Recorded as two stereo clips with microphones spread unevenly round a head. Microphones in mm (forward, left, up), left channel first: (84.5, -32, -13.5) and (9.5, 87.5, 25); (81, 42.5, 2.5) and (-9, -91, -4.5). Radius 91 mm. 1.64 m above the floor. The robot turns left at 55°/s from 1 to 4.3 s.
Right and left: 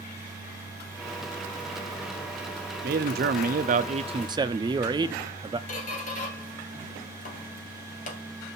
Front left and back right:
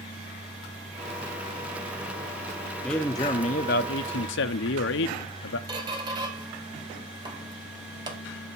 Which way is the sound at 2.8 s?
145° left.